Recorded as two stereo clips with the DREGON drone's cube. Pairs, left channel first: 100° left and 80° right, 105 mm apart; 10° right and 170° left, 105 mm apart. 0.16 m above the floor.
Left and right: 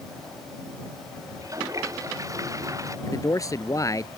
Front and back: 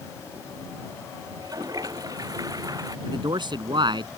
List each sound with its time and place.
1.3 s a toilet flushing: 135° right
3.1 s a man speaking: 150° left